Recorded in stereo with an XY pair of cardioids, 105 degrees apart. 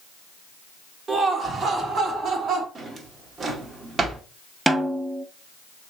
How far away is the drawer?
About 1.1 m.